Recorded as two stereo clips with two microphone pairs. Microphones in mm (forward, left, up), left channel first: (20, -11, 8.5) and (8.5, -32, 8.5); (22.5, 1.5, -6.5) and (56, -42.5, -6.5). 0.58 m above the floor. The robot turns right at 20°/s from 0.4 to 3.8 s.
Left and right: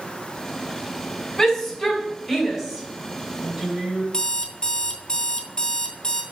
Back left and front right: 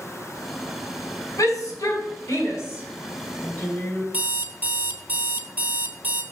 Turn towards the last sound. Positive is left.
turn(degrees=5)